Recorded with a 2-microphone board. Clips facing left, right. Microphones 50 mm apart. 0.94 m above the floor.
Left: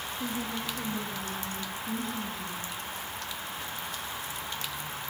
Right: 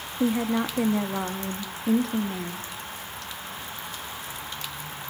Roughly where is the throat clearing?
No throat clearing in this recording.